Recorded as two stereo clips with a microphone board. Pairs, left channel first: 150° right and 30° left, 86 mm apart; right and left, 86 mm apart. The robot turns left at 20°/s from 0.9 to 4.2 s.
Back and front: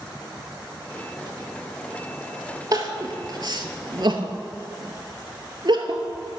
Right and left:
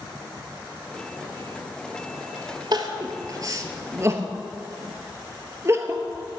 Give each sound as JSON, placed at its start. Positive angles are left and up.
{"t": 2.7, "sound": "crying", "azimuth_deg": 65, "distance_m": 0.8}